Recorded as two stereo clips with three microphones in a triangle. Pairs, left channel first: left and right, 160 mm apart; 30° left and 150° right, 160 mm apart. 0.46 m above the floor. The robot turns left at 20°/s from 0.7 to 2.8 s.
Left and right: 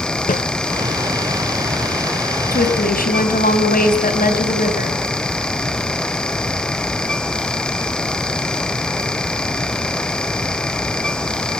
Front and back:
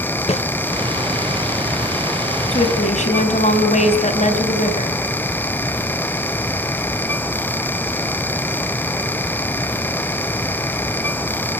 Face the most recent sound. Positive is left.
turn(degrees=70)